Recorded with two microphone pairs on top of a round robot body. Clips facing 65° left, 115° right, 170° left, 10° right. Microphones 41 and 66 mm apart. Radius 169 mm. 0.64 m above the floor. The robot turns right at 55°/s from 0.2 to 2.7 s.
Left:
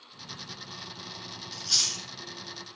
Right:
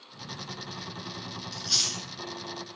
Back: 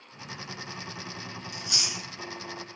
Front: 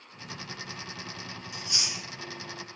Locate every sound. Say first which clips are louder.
1.5 s chewing: left 1 dB, even; 150° left, 1.1 m; by 2.0 s straight behind, 1.1 m